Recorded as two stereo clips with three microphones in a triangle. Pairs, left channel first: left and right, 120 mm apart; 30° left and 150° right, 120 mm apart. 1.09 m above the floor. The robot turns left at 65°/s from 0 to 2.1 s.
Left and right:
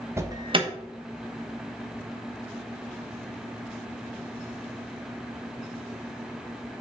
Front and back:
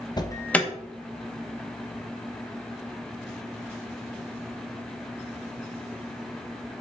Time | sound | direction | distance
0.2 | an alarm | 25° right | 1.1 m